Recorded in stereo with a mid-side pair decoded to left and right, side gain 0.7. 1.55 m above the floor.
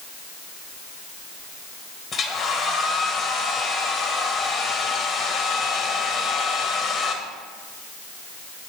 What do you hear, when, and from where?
2.1 s a hair dryer: 40° left, 1.6 m